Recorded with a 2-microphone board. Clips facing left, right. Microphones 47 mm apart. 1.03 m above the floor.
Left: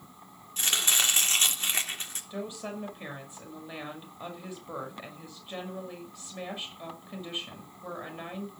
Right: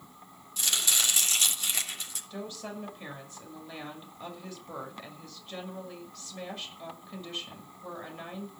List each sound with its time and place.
0.6 s chopping: 35° left (ahead or behind), 3 m
2.3 s a woman speaking: 15° left (ahead or behind), 6 m